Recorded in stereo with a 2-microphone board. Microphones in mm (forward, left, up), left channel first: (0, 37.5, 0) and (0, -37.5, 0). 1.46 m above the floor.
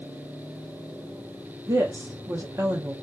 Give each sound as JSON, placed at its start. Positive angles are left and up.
{"t": 1.7, "sound": "a woman speaking", "side_deg": -35, "distance_m": 0.6}